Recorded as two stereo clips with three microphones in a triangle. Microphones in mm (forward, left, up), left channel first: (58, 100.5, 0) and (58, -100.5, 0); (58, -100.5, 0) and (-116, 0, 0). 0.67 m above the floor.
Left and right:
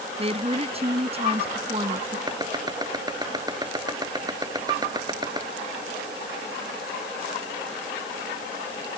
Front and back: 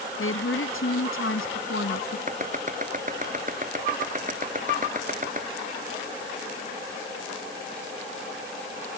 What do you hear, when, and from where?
0.2 s a woman speaking: 30° right
2.3 s chopping: 160° right